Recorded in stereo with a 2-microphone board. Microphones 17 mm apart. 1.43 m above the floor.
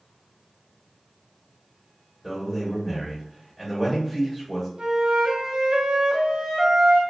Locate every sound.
2.2 s a man speaking: 15° left (ahead or behind), 1.4 m
4.8 s a flute: 55° right (ahead or behind), 0.7 m